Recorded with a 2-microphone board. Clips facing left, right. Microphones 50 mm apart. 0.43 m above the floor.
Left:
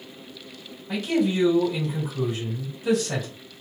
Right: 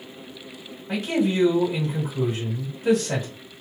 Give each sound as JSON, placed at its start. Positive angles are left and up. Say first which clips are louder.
{"t": 0.9, "sound": "a man speaking", "louder": "even", "side_deg": -35, "distance_m": 1.9}